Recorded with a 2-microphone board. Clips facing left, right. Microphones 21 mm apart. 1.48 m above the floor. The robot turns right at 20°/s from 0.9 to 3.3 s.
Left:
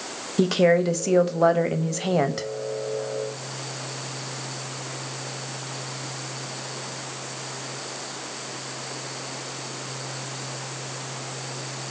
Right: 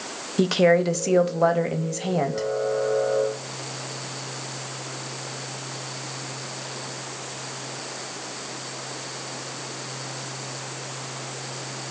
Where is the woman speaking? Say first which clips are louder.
Right 1 dB; straight ahead, 0.5 m; by 2.5 s 30° left, 0.5 m.